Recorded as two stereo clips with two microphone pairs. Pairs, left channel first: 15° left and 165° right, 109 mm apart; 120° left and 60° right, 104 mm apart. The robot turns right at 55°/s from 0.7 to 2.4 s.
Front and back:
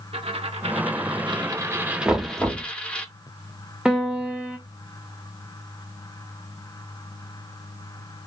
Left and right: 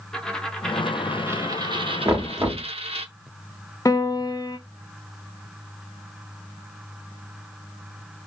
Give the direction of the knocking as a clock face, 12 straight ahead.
3 o'clock.